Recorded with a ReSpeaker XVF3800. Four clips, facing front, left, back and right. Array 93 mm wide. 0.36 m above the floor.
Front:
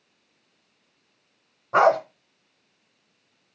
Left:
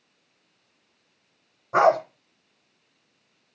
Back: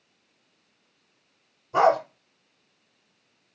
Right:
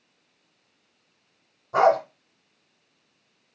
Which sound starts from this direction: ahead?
A dog barking, at 1.7 s.